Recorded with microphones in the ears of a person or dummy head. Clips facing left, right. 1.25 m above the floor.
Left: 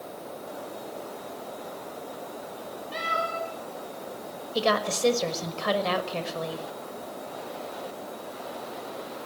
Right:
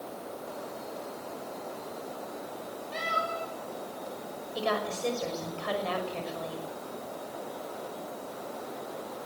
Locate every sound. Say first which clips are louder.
2.9 s a cat meowing: left 3 dB; 10° left (ahead or behind), 8.5 m
4.5 s a woman speaking: left 5 dB; 70° left (ahead or behind), 5.5 m